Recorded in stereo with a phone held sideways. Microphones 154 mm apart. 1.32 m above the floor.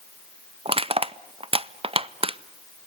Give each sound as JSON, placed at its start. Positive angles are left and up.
{"t": 0.7, "sound": "crushing", "side_deg": -40, "distance_m": 0.5}